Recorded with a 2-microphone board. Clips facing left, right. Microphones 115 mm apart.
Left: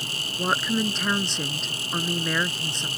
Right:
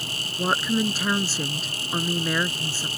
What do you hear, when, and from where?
0.4 s a woman speaking: 5° right (ahead or behind)